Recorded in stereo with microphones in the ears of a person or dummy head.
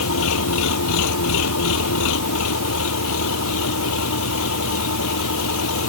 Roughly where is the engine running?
Left.